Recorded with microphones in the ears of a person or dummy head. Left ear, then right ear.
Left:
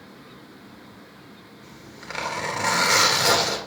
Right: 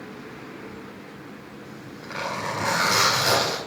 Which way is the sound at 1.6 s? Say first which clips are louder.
Left 2 dB; 75° left (ahead or behind).